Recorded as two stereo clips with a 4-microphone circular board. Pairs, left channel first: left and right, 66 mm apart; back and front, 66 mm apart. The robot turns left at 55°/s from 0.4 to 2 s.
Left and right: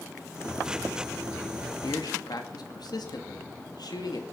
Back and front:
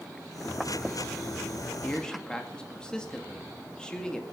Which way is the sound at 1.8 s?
110° left.